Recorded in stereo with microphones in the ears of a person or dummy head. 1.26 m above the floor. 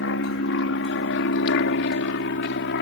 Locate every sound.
0.0 s an aircraft: 65° left (ahead or behind)